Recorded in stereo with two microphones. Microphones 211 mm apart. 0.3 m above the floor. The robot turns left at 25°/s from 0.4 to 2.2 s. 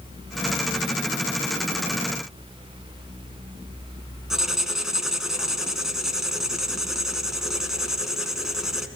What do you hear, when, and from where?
4.3 s writing: centre (ahead or behind), 2 m